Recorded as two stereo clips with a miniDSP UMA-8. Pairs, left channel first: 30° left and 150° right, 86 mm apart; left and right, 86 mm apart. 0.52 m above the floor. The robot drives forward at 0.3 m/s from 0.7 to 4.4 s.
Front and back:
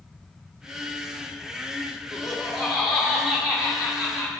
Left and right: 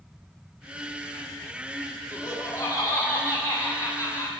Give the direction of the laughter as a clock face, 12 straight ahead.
8 o'clock.